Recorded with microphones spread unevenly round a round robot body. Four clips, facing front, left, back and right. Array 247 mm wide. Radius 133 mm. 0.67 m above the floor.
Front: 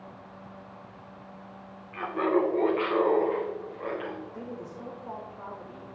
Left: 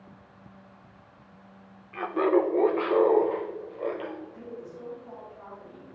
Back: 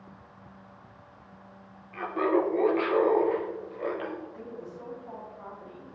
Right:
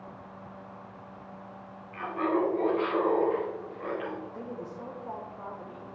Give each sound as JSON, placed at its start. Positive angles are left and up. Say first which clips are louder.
{"t": 1.9, "sound": "laughter", "louder": "left 5 dB, even", "azimuth_deg": 85, "distance_m": 1.8}
{"t": 4.3, "sound": "a woman speaking", "louder": "right 2 dB, front 2 dB", "azimuth_deg": -50, "distance_m": 3.0}